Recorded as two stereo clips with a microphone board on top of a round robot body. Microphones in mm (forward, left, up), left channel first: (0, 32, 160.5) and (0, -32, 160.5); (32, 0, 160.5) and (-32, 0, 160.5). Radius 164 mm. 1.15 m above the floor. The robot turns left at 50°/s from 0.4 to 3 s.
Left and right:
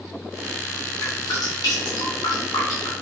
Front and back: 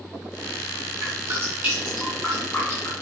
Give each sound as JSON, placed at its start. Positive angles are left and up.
{"t": 1.0, "sound": "dripping", "azimuth_deg": 145, "distance_m": 3.5}